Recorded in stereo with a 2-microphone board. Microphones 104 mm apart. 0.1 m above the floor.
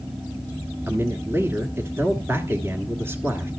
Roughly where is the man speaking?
Right.